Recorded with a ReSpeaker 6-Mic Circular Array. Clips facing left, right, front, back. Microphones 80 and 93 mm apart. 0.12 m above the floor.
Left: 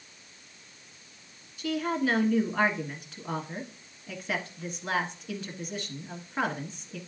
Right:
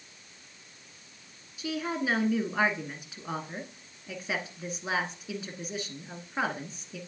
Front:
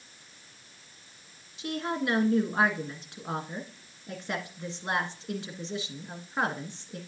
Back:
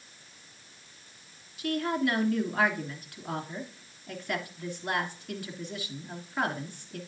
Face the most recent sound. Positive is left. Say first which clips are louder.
# left 3 dB, back 3 dB
turn(degrees=-20)